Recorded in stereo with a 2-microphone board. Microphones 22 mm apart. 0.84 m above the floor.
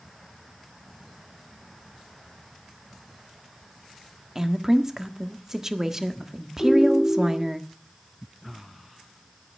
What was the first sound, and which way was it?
A woman speaking, 15° right (ahead or behind).